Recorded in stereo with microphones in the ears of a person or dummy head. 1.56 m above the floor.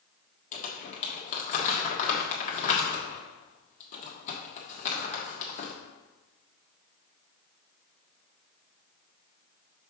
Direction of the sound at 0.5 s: 35° left (ahead or behind).